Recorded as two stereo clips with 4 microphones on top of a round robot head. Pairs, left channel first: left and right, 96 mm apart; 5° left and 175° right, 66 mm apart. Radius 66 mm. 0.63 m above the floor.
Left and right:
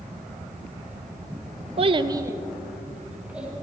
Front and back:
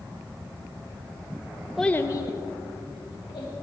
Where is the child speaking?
85° right, 0.6 m; by 3.5 s 10° right, 2.5 m.